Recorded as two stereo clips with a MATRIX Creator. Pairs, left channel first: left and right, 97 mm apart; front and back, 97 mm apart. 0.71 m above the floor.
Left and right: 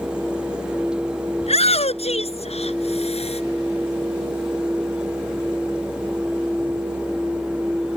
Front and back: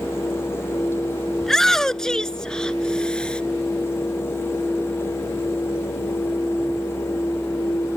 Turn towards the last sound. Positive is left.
turn(degrees=80)